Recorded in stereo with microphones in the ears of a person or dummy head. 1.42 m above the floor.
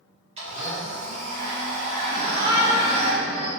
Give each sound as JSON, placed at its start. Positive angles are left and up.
{"t": 0.4, "sound": "a blender", "side_deg": -25, "distance_m": 0.7}
{"t": 2.1, "sound": "a shout", "side_deg": -15, "distance_m": 0.7}